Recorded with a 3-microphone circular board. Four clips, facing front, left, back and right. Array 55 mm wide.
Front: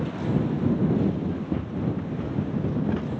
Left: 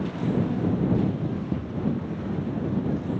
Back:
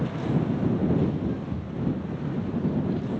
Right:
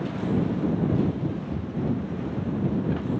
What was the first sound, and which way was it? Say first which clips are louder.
Running footsteps: left 1 dB, front 2 dB; 30° left.